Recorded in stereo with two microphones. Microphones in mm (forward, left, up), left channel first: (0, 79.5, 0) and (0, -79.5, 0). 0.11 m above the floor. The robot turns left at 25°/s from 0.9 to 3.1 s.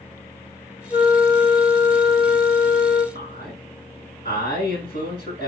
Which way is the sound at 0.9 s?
140° left.